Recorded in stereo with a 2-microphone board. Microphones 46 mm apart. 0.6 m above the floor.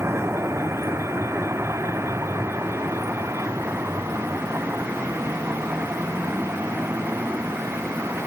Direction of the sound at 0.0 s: 75° right (ahead or behind).